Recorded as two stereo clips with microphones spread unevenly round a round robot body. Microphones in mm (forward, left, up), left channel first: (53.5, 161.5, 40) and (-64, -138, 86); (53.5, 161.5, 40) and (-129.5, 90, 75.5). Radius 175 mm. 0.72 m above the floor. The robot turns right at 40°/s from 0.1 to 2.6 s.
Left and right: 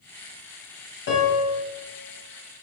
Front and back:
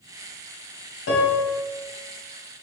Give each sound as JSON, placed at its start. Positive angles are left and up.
{"t": 1.1, "sound": "a piano", "azimuth_deg": 15, "distance_m": 0.9}